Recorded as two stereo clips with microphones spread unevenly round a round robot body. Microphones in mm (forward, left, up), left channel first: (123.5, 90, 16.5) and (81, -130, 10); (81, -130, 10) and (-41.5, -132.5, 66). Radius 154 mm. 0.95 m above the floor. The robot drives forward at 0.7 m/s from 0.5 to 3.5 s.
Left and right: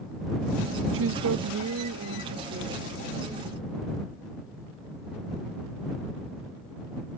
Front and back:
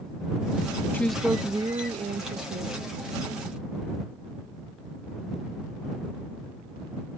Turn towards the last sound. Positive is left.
turn(degrees=-160)